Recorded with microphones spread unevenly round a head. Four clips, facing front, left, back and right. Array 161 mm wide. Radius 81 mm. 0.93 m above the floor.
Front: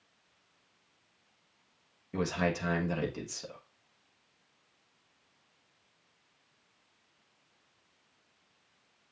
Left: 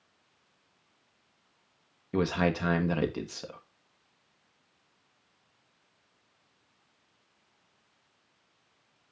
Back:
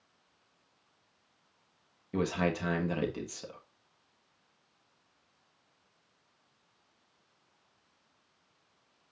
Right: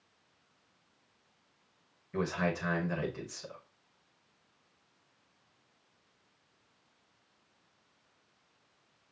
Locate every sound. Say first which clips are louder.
2.1 s a man speaking: left 5 dB, back 1 dB; 100° left, 1.3 m